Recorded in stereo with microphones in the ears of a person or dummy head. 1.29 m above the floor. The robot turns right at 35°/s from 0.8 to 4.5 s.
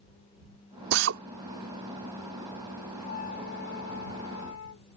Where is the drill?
70° right (ahead or behind).